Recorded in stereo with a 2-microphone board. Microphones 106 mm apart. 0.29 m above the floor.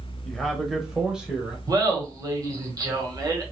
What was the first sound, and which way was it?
A man speaking, 5° left (ahead or behind).